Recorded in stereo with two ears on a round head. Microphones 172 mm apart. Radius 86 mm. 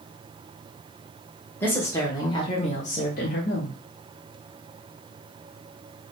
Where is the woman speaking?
10° left (ahead or behind), 1.2 m; by 3.8 s 55° left (ahead or behind), 0.8 m.